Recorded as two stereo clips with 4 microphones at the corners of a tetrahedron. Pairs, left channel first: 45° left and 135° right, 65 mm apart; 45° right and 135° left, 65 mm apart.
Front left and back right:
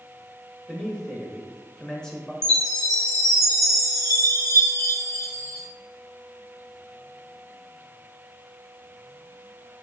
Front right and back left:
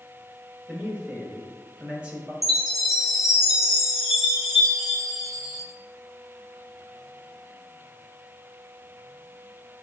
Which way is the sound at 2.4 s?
50° left.